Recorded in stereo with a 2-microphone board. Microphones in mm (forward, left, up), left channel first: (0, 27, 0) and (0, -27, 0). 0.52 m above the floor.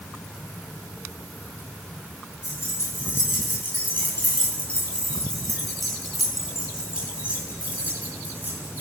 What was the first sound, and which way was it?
Keys jangling, 50° left (ahead or behind).